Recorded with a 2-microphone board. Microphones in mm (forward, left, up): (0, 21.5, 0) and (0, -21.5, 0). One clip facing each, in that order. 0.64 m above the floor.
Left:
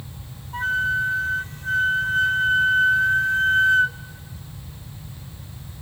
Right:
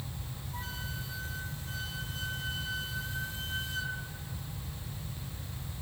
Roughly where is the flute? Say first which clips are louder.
Left 21 dB; left.